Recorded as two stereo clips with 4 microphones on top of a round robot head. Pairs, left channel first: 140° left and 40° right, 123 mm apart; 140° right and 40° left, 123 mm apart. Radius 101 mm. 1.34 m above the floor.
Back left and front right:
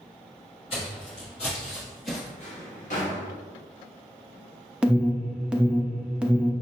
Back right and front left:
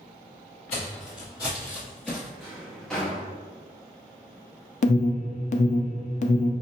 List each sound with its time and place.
0.7 s footsteps: 175° right, 1.7 m; by 2.3 s 120° left, 1.5 m
2.4 s a drawer: 135° left, 0.8 m
4.8 s an alarm: 120° right, 0.5 m